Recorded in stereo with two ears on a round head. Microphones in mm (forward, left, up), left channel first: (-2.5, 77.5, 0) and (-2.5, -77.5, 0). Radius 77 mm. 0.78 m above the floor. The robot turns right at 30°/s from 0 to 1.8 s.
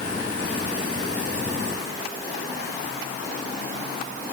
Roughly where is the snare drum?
I don't hear a snare drum.